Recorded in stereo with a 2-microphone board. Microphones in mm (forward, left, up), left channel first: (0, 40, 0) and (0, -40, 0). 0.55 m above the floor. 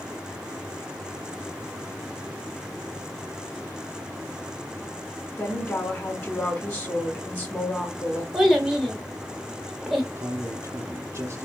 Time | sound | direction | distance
5.4 | a woman speaking | 30° left (ahead or behind) | 1.9 m
8.3 | a child speaking | 5° right (ahead or behind) | 1.2 m
10.2 | a man speaking | 35° right (ahead or behind) | 0.9 m